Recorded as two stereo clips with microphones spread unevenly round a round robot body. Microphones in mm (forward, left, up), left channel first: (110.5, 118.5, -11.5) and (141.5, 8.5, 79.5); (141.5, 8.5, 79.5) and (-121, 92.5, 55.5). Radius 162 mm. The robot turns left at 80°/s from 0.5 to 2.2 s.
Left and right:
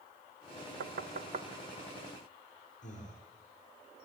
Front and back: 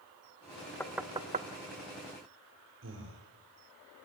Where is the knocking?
105° right, 0.8 m; by 1.5 s 155° right, 0.8 m.